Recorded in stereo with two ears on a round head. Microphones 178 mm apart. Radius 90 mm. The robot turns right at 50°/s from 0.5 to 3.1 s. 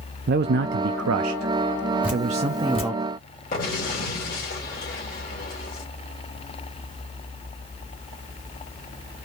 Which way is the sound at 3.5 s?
45° left (ahead or behind).